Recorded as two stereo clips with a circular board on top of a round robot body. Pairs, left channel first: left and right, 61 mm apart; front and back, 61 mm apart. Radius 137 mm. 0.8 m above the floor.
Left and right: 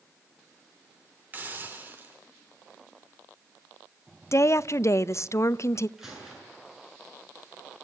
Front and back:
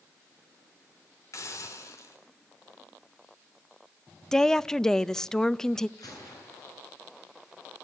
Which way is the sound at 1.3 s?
30° right.